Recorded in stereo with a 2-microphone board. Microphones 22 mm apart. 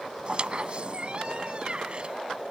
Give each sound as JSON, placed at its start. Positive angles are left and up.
{"t": 0.2, "sound": "a squeak", "side_deg": -45}